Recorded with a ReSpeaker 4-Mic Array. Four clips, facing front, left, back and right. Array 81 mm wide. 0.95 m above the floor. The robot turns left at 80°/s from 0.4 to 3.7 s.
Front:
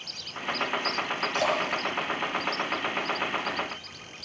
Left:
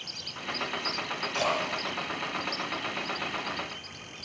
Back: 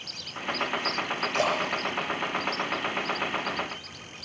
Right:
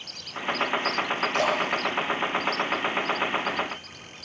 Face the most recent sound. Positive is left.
turn(degrees=35)